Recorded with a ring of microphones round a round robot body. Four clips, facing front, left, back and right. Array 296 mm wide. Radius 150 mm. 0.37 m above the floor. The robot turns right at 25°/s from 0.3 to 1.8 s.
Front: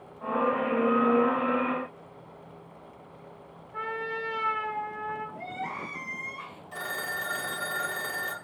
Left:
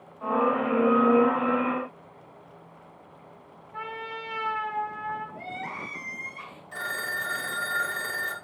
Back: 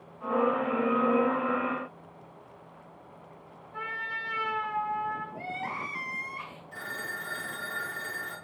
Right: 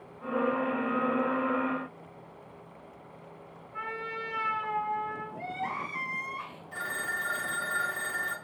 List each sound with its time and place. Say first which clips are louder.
3.7 s a trumpet: left 1 dB, front 4 dB; 120° left, 3.5 m
5.3 s crying: right 2 dB, even; 140° left, 1.8 m
6.7 s a phone ringing: left 2 dB, front 4 dB; 30° left, 1.1 m